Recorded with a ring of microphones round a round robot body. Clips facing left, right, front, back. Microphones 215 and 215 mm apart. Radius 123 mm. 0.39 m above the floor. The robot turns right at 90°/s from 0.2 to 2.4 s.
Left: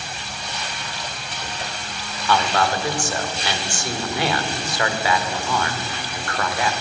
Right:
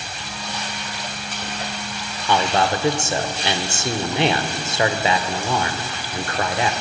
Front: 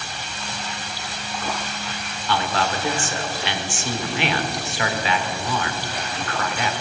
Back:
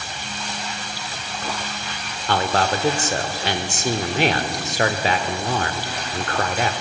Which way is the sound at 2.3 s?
160° right.